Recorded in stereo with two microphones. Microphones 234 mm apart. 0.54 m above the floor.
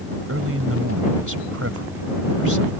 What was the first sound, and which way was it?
A man speaking, 70° right (ahead or behind).